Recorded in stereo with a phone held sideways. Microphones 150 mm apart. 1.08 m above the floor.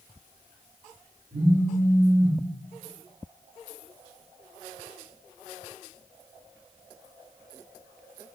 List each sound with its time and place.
1.3 s a phone buzzing: 80° right, 7 m